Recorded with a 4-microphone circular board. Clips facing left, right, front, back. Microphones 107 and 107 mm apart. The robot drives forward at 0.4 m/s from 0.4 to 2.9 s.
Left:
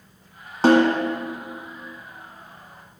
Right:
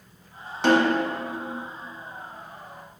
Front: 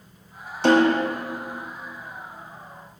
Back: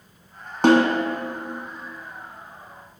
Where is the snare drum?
145° left, 1.6 m.